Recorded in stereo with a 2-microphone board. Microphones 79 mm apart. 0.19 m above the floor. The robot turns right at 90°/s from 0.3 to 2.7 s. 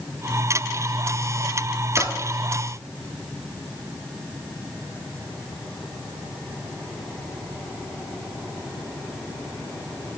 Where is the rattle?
No rattle in this recording.